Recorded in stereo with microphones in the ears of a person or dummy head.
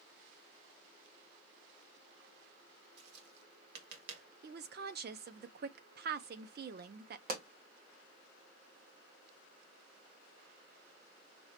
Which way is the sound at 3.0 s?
60° right (ahead or behind).